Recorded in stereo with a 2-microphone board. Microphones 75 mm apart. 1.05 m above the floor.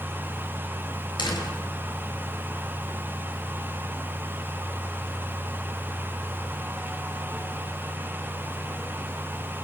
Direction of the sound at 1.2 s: 85° left.